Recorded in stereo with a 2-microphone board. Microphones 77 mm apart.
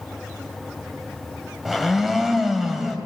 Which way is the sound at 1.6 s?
5° right (ahead or behind).